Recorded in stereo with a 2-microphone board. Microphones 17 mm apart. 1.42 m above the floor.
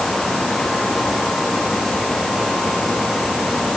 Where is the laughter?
I don't hear laughter.